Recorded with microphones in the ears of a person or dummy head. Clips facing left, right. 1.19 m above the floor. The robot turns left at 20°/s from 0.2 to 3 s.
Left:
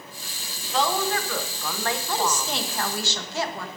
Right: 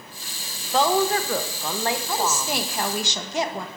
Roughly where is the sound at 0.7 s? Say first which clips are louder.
Right 4 dB; behind right.